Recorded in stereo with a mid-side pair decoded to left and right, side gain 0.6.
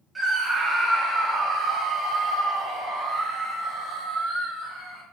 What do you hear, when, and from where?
0.1 s a scream: 20° right, 1.0 m; by 5.0 s 65° right, 4.5 m